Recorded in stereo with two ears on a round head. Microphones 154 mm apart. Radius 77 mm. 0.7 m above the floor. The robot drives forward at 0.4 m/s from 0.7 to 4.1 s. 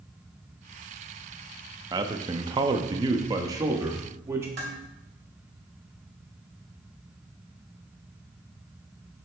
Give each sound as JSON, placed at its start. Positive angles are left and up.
{"t": 1.9, "sound": "a man speaking", "side_deg": -20, "distance_m": 0.6}
{"t": 4.6, "sound": "dishes clattering", "side_deg": -40, "distance_m": 2.5}